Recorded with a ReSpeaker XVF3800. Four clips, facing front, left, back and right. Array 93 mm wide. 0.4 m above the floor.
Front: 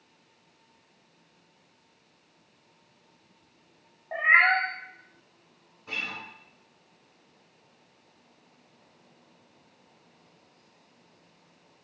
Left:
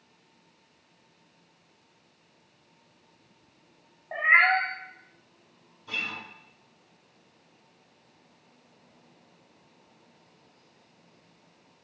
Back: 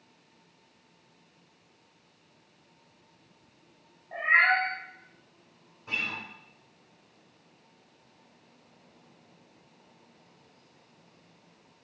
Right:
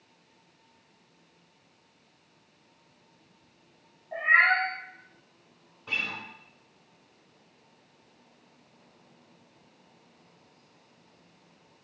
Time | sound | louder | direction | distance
4.1 | a cat meowing | left 1 dB, front 2 dB | 50° left | 0.8 m
5.9 | a guitar | right 1 dB, back 1 dB | 95° right | 2 m